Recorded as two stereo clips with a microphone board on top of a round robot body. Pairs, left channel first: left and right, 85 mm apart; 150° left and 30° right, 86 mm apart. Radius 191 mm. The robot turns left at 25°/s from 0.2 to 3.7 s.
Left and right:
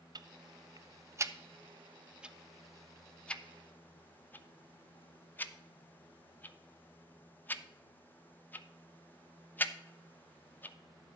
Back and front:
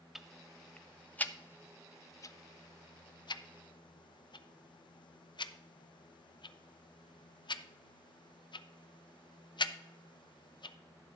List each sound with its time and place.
0.1 s ticking: 115° right, 0.7 m; by 10.8 s 155° left, 0.7 m